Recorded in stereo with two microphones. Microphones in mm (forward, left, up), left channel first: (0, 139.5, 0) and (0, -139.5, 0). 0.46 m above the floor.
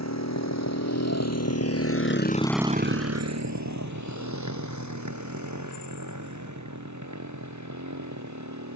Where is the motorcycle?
70° left (ahead or behind); by 8.8 s 85° right.